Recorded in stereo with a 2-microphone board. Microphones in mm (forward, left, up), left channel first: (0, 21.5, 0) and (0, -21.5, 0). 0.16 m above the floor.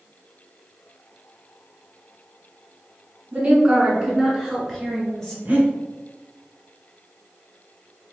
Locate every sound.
3.3 s a woman speaking: 30° right (ahead or behind), 1.5 m; by 5.3 s 5° left (ahead or behind), 2.5 m
5.5 s breathing: 35° right (ahead or behind), 1.4 m